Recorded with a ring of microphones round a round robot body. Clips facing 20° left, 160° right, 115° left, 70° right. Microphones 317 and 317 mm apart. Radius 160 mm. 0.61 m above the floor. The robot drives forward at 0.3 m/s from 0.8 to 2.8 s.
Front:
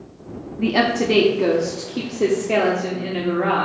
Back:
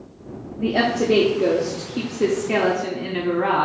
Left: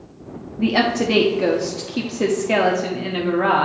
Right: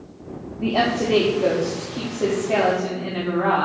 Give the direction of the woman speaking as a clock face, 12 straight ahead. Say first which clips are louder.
Front 1 dB, left 3 dB; 9 o'clock.